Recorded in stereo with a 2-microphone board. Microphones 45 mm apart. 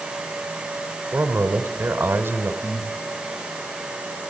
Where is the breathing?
25° right (ahead or behind), 4 m.